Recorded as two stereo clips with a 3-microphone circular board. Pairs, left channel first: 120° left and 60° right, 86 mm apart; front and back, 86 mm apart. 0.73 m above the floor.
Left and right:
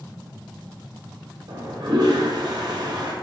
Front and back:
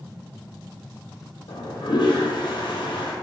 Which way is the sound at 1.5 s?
25° right.